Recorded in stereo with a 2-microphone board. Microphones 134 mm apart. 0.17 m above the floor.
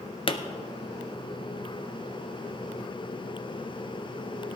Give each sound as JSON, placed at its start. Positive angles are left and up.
{"t": 0.3, "sound": "a pop", "side_deg": 45, "distance_m": 0.8}